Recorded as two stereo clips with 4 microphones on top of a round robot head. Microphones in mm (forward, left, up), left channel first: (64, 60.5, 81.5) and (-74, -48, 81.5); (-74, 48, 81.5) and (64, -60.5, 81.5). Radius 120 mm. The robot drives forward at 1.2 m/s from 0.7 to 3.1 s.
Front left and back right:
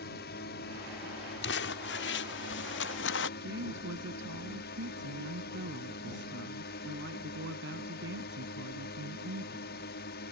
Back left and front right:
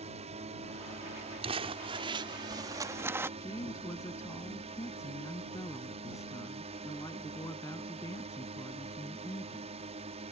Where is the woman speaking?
145° right.